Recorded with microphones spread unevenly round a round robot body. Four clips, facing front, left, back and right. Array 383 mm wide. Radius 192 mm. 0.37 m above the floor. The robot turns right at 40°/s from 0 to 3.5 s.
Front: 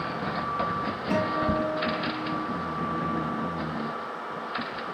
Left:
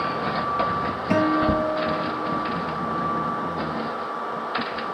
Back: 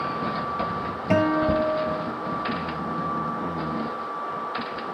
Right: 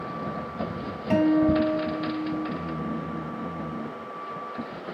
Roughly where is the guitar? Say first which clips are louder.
Right 1 dB, back 6 dB; behind.